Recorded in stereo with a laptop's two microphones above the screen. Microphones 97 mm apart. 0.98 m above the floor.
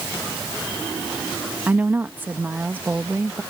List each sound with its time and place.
1.7 s a woman speaking: 20° right (ahead or behind)